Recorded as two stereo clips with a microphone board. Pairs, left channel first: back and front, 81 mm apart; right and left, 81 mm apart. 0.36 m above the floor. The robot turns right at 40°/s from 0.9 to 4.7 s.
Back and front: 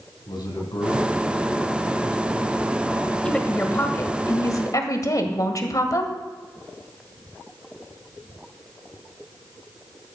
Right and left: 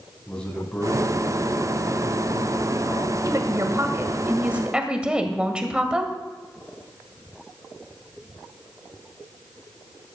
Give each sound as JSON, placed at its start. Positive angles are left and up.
{"t": 0.3, "sound": "a man speaking", "azimuth_deg": -165, "distance_m": 3.0}
{"t": 3.2, "sound": "a woman speaking", "azimuth_deg": 105, "distance_m": 1.7}